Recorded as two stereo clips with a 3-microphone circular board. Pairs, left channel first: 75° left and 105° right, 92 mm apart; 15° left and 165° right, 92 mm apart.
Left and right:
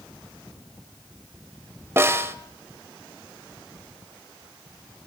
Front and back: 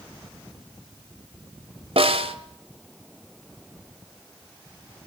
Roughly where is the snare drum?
Behind.